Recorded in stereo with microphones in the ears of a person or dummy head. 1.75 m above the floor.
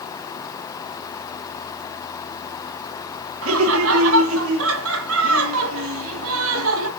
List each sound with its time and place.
3.4 s laughter: 75° right (ahead or behind), 2 m